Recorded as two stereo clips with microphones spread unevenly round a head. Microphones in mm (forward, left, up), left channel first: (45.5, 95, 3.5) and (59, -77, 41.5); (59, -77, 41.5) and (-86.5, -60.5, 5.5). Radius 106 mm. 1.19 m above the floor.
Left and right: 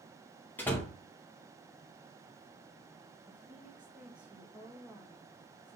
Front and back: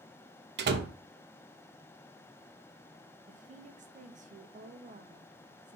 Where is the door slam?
Straight behind, 0.8 m.